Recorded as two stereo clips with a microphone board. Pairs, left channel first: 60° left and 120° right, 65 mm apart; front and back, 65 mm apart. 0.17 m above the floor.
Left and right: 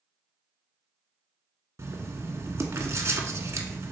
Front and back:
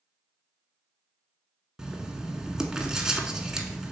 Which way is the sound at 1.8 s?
100° right.